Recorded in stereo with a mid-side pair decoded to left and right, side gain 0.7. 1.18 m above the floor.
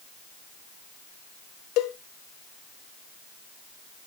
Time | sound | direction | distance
1.8 | a cowbell | 60° left | 0.9 m